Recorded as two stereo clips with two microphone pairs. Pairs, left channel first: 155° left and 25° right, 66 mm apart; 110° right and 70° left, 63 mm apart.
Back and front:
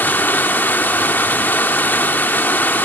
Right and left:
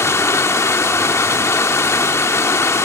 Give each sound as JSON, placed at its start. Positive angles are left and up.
{"t": 0.0, "sound": "running water", "azimuth_deg": -150, "distance_m": 1.0}